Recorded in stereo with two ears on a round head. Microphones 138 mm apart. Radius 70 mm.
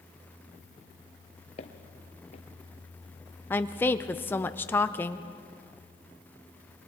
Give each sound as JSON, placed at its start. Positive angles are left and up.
{"t": 1.6, "sound": "footsteps", "side_deg": 45, "distance_m": 1.5}
{"t": 3.5, "sound": "a woman speaking", "side_deg": 10, "distance_m": 0.6}